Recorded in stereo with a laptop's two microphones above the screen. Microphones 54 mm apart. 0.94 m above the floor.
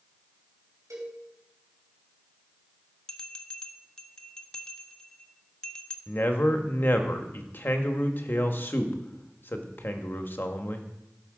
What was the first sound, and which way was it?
A cowbell, 85° right.